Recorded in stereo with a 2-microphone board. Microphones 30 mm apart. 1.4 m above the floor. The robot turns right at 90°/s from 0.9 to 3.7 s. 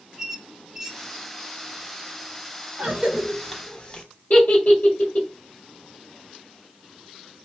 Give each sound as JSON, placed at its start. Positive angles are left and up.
{"t": 0.2, "sound": "a squeak", "side_deg": -10, "distance_m": 0.7}
{"t": 2.8, "sound": "a cough", "side_deg": -55, "distance_m": 1.6}
{"t": 4.3, "sound": "a giggle", "side_deg": 60, "distance_m": 2.0}